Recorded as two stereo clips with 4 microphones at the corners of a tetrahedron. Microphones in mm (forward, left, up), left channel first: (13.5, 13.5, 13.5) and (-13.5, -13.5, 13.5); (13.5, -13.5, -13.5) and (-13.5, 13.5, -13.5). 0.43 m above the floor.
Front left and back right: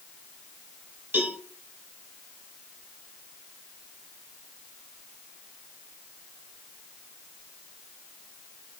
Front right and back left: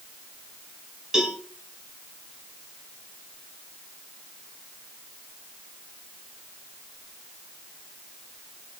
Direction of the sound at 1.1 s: 150° right.